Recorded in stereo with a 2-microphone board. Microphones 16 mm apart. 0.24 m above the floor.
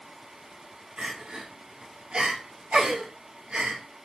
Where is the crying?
80° right, 1.1 m.